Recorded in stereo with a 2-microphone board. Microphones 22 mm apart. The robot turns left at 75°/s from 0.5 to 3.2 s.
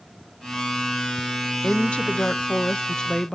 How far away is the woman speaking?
About 0.9 m.